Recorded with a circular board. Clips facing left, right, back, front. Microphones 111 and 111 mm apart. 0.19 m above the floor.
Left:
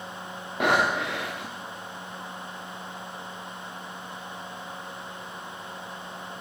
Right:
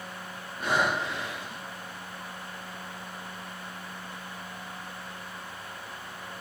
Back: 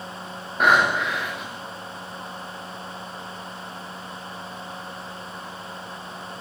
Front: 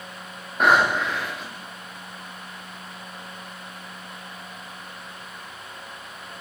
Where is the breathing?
90° left, 8 m.